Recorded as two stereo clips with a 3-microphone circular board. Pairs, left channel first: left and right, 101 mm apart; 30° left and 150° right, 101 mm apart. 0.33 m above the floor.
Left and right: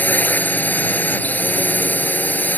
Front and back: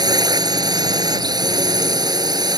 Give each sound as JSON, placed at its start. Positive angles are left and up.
{"t": 0.0, "sound": "a drone", "azimuth_deg": 160}